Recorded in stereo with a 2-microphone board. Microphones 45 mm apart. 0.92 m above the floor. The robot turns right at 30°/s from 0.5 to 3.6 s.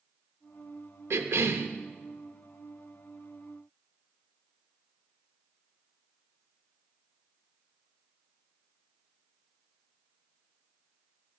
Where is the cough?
65° right (ahead or behind), 0.8 m; by 1.7 s 70° right (ahead or behind), 0.8 m.